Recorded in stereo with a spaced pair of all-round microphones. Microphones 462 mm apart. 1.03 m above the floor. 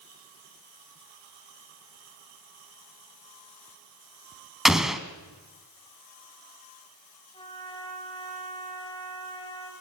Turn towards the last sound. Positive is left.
turn(degrees=10)  # may be behind; listen again after turning